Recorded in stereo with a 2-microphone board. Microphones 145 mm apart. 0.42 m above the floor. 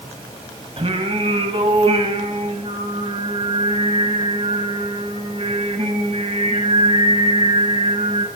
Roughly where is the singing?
Right.